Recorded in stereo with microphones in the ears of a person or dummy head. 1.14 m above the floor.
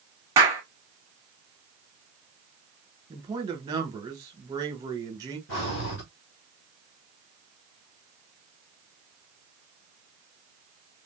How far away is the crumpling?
No crumpling in this recording.